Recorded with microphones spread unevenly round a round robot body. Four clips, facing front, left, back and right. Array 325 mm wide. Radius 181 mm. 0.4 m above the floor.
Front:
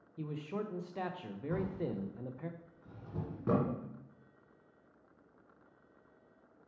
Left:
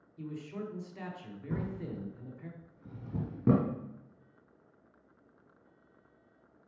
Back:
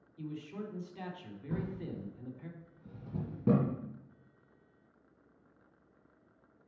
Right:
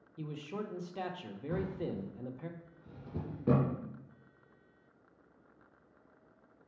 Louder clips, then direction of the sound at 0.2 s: Even, front 2 dB; 85° right.